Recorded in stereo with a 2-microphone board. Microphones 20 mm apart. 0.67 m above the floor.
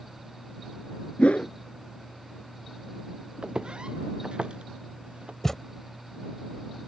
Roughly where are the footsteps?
Right.